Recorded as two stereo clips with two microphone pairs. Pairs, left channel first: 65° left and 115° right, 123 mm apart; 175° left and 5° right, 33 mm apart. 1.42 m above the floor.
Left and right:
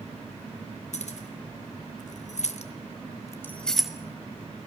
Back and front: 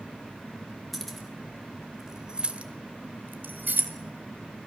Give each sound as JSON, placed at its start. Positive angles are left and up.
{"t": 0.9, "sound": "keys jangling", "azimuth_deg": 85, "distance_m": 3.5}